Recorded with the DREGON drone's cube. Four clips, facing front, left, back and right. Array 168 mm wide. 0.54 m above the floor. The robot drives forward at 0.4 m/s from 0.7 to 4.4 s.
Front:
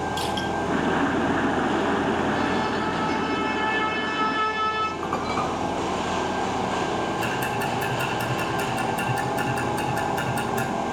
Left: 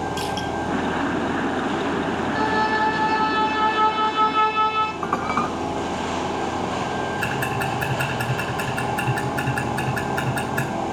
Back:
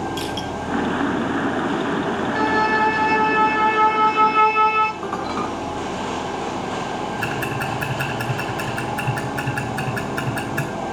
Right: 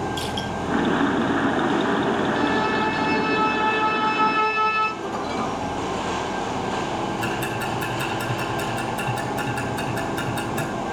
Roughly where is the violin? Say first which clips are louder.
Left 1 dB, back 6 dB; behind left.